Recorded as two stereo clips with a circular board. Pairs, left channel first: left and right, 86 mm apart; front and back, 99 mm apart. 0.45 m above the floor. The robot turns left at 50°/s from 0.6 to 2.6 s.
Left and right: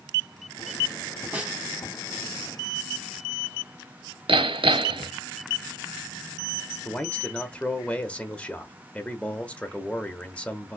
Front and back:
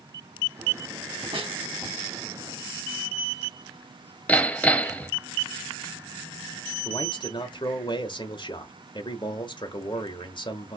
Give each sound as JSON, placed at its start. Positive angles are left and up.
{"t": 1.3, "sound": "a snare drum", "azimuth_deg": -165, "distance_m": 2.5}
{"t": 4.3, "sound": "hammering", "azimuth_deg": -75, "distance_m": 0.5}
{"t": 6.8, "sound": "a man speaking", "azimuth_deg": 15, "distance_m": 1.1}